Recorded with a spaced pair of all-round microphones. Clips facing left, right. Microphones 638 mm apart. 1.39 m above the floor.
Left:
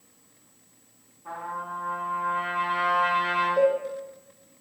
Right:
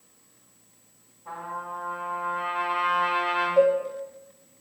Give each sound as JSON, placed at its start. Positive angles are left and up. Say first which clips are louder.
{"t": 1.2, "sound": "a trumpet", "louder": "even", "side_deg": 85, "distance_m": 1.5}
{"t": 3.6, "sound": "a cowbell", "louder": "right 2 dB", "side_deg": -20, "distance_m": 0.6}